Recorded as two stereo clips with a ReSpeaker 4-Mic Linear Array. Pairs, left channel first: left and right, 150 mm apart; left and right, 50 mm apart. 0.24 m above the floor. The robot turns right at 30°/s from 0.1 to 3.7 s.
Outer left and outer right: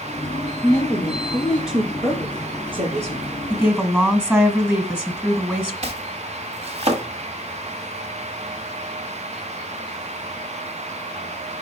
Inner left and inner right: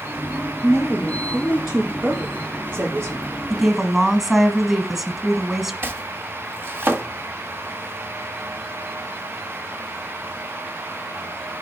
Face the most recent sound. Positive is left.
turn(degrees=-45)  # may be behind; listen again after turning